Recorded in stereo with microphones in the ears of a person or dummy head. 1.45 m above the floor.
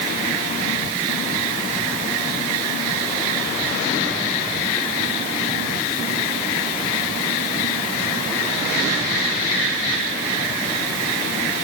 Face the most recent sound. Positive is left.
No sound to turn to.